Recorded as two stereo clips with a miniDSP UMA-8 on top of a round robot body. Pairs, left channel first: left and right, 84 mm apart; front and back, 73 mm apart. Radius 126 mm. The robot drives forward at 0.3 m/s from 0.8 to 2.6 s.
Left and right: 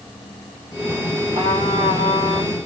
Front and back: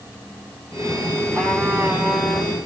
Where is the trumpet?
100° right, 3 m; by 2.6 s 105° right, 3 m.